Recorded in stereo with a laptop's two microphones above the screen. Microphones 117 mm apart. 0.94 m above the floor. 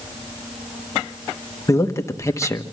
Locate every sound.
1.7 s a man speaking: 25° left (ahead or behind), 1.1 m